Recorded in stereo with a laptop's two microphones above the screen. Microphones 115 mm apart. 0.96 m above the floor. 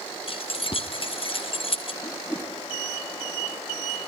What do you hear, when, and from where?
0.3 s keys jangling: 50° left (ahead or behind), 0.6 m
2.0 s a whoosh: 20° left (ahead or behind), 0.7 m